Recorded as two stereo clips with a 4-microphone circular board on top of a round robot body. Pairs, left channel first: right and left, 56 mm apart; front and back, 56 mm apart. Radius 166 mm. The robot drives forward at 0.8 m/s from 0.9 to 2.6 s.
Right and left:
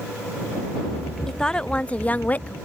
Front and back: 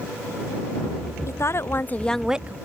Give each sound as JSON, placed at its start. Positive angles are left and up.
{"t": 1.3, "sound": "a woman speaking", "azimuth_deg": -15}